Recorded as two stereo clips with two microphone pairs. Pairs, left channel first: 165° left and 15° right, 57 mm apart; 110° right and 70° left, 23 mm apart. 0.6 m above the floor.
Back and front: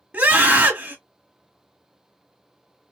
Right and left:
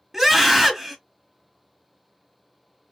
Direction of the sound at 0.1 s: 15° left.